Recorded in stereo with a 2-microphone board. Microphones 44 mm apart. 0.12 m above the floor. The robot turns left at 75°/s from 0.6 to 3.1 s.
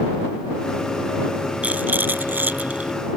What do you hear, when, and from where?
1.6 s a rattle: 45° right; by 2.9 s 140° right